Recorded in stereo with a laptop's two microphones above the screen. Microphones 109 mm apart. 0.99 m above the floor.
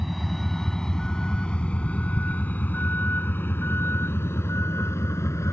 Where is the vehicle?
Centre (ahead or behind); by 5.5 s 25° left (ahead or behind).